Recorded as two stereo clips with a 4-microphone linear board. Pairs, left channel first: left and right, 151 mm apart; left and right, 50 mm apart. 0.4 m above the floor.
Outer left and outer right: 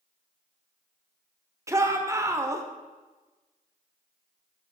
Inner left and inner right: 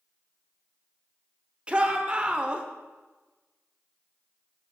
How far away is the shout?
About 0.8 m.